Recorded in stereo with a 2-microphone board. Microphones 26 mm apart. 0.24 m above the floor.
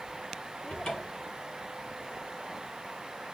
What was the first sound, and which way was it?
A cupboard door, 30° left (ahead or behind).